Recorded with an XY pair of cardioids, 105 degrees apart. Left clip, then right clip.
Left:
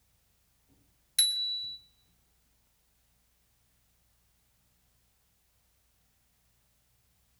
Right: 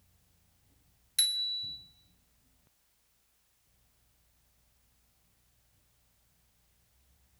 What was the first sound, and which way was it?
A bicycle bell, 15° left.